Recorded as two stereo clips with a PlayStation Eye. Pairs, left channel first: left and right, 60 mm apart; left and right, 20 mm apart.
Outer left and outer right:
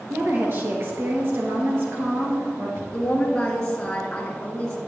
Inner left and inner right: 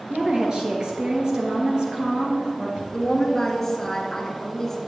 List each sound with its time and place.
0.1 s a woman speaking: 45° right (ahead or behind), 2 m
2.9 s a woman speaking: 15° left (ahead or behind), 2 m